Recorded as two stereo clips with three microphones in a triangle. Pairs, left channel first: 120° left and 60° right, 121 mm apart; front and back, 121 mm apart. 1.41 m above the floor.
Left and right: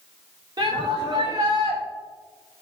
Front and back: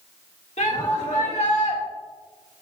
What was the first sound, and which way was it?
A shout, 5° right.